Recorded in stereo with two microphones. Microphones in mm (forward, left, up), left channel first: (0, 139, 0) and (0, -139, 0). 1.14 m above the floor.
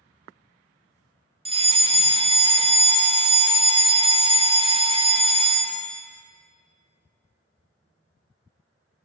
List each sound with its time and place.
1.4 s a fire alarm: 20° right (ahead or behind), 1.0 m